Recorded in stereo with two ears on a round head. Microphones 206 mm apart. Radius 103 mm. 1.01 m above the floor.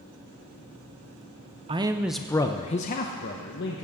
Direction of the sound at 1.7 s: 25° right (ahead or behind).